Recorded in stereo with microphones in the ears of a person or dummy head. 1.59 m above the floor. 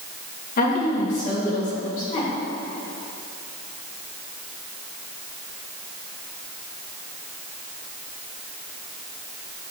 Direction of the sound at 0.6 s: 50° left (ahead or behind).